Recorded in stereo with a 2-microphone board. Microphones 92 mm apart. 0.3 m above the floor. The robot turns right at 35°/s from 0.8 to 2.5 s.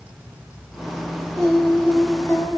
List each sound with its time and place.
1.4 s singing: 5° left, 1.4 m; by 2.6 s 45° left, 1.4 m